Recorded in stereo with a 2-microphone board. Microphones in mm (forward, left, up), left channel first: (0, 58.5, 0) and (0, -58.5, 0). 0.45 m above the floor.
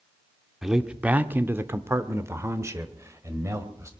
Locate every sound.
0.6 s a man speaking: 5° right (ahead or behind), 0.8 m; by 3.9 s 25° right (ahead or behind), 2.0 m